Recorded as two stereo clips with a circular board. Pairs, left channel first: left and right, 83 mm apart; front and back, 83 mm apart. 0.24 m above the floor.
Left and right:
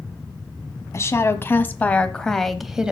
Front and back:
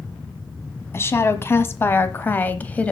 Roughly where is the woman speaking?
Ahead left.